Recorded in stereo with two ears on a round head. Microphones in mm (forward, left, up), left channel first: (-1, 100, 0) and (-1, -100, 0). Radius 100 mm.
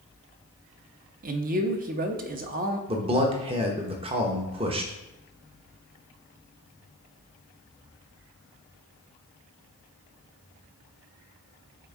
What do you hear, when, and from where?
1.2 s a man speaking: 40° right (ahead or behind), 0.8 m
2.9 s a man speaking: 25° right (ahead or behind), 1.0 m